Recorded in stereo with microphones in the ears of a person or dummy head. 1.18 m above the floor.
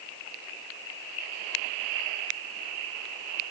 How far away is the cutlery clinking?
I don't hear cutlery clinking.